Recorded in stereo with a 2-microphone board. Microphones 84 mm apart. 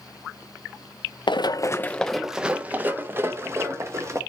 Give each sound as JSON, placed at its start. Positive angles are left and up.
{"t": 1.3, "sound": "running footsteps", "side_deg": 65, "distance_m": 0.6}